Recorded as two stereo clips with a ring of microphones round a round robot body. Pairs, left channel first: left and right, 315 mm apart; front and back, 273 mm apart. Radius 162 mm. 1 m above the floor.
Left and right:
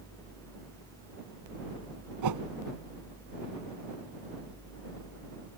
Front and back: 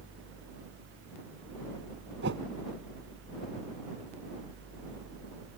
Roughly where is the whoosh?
Behind right.